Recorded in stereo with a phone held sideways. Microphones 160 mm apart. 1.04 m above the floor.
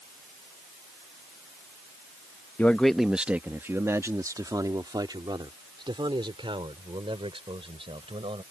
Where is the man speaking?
10° left (ahead or behind); by 8.4 s 35° right (ahead or behind).